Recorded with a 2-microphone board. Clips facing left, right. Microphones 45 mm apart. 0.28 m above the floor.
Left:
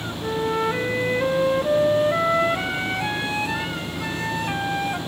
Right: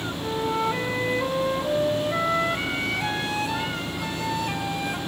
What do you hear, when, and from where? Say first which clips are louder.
0.2 s a flute: left 3 dB; 25° left (ahead or behind), 1.5 m